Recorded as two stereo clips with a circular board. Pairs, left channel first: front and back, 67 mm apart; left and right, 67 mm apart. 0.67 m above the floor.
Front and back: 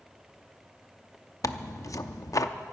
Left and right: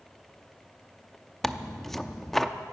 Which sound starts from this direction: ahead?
Tearing paper, at 1.4 s.